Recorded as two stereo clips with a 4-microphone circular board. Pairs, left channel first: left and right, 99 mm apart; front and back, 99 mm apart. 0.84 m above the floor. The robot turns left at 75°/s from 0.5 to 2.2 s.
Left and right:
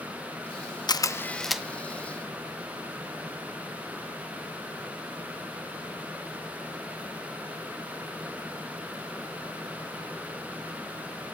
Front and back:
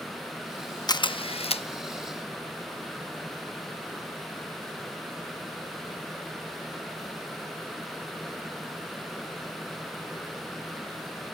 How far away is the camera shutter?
About 0.6 m.